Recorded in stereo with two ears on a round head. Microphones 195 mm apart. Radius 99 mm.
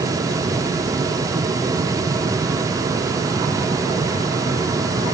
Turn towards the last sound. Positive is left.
No sound to turn to.